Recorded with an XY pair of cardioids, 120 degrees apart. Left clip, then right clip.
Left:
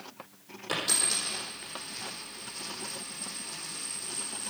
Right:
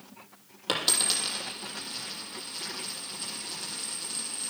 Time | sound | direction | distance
0.7 | a dropped coin | 60° right | 6 m